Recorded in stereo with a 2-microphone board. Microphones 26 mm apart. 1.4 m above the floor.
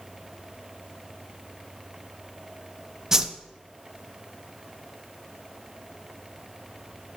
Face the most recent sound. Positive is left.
turn(degrees=-20)  # may be behind; listen again after turning